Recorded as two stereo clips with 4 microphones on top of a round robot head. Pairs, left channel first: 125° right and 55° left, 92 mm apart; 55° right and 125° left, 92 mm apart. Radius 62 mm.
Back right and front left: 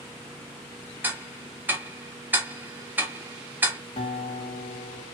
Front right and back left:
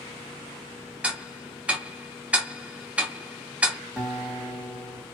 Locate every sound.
1.0 s ticking: 75° left, 0.8 m
4.0 s a guitar: 145° right, 1.2 m